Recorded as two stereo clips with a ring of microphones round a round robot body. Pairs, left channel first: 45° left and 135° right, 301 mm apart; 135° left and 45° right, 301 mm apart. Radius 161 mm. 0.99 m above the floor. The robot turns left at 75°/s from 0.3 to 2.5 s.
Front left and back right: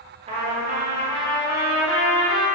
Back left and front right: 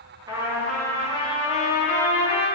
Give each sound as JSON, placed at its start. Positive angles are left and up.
{"t": 0.3, "sound": "a trumpet", "azimuth_deg": -105, "distance_m": 0.6}